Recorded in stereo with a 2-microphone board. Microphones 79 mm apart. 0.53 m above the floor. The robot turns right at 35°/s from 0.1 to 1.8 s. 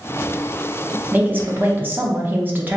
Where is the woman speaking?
25° right (ahead or behind), 0.7 m.